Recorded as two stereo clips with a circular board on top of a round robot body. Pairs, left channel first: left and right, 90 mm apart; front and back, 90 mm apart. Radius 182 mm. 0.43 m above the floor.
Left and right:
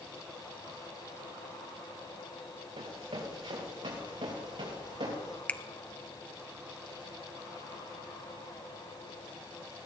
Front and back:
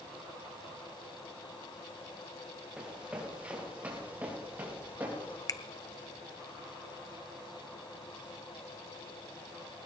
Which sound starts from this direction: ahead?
A finger snap, at 5.5 s.